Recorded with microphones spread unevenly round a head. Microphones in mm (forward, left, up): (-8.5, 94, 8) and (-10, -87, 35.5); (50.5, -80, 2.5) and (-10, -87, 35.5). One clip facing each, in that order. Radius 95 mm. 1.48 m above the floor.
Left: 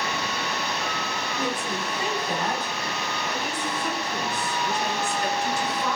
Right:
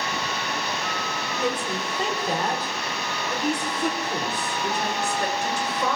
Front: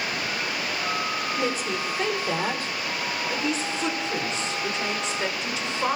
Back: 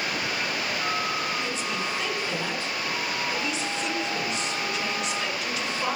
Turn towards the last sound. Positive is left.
turn(degrees=-60)